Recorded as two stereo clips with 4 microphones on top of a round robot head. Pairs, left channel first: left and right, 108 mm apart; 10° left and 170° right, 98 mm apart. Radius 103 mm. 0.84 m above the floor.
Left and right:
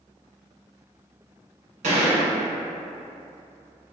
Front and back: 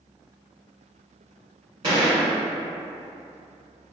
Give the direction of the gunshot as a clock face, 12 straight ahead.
4 o'clock.